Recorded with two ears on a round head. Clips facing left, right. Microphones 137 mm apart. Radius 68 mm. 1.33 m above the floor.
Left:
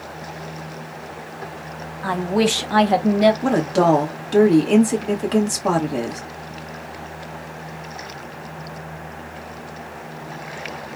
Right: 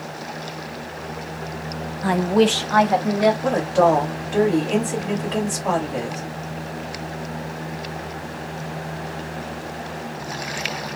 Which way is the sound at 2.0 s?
25° right (ahead or behind).